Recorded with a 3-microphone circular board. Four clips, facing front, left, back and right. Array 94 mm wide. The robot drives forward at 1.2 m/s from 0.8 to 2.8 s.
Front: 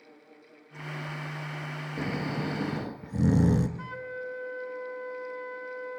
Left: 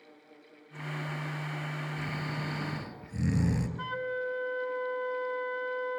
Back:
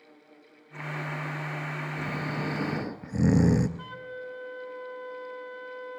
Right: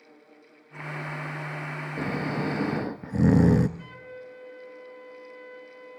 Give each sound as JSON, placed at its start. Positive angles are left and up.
{"t": 2.0, "sound": "snoring", "azimuth_deg": -70, "distance_m": 1.5}
{"t": 3.8, "sound": "a flute", "azimuth_deg": 75, "distance_m": 0.9}